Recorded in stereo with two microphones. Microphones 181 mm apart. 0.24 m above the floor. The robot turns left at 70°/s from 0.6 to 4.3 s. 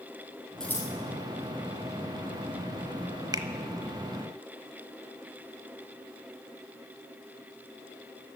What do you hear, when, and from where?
0.6 s scissors: centre (ahead or behind), 3 m; by 0.9 s 25° left (ahead or behind), 3 m
3.3 s a finger snap: 20° right (ahead or behind), 0.8 m